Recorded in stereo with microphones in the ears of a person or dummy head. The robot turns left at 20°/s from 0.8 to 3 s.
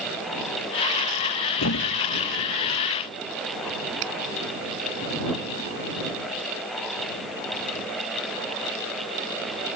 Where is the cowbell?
I don't hear a cowbell.